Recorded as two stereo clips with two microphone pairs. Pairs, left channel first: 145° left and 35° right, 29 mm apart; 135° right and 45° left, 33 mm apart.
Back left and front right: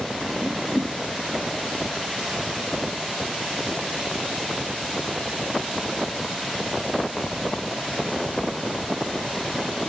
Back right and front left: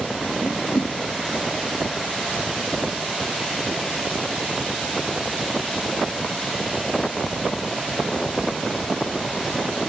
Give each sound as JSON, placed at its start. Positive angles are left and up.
{"t": 0.4, "sound": "a whoosh", "azimuth_deg": -140, "distance_m": 0.6}